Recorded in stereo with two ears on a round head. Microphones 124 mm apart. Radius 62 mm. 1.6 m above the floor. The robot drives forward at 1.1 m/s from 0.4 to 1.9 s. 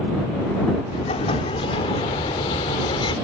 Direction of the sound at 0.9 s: 50° left (ahead or behind).